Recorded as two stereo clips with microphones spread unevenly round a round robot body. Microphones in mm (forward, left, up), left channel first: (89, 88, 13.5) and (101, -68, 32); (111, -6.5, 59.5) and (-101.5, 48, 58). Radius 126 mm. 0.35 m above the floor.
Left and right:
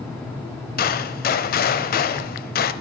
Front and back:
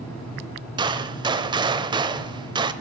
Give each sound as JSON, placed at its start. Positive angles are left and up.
{"t": 0.8, "sound": "a gunshot", "azimuth_deg": 95, "distance_m": 0.7}